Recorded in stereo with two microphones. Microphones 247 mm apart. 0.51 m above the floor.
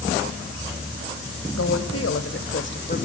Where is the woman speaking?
75° left (ahead or behind), 3 m; by 3.0 s 35° left (ahead or behind), 1.6 m.